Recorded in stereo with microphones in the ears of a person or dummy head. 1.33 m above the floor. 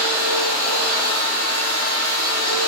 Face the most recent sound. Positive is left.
turn(degrees=-35)  # may be behind; listen again after turning